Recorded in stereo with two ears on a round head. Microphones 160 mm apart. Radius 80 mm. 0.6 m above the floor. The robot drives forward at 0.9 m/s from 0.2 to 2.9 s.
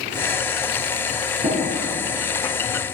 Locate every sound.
1.4 s tapping: 20° right (ahead or behind), 4.5 m